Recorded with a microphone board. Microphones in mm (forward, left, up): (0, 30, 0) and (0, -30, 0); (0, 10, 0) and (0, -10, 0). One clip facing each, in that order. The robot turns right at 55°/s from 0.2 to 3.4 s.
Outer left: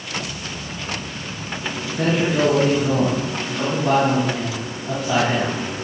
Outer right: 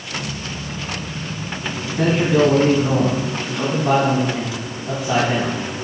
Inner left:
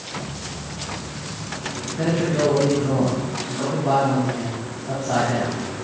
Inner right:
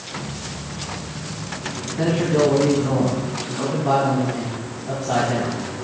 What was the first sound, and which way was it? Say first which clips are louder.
A man speaking: outer right 3 dB, inner right 2 dB; 90° right.